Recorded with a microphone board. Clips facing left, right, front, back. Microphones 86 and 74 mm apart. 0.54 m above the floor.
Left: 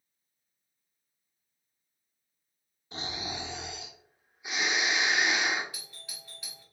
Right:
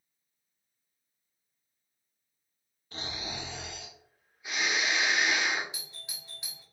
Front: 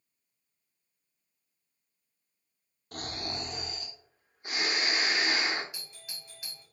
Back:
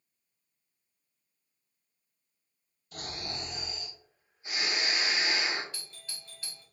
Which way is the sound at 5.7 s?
55° right.